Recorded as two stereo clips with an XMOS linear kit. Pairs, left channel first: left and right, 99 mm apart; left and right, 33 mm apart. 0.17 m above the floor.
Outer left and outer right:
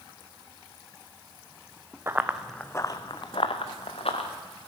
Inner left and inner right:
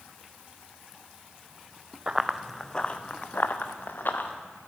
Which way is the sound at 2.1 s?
25° right (ahead or behind).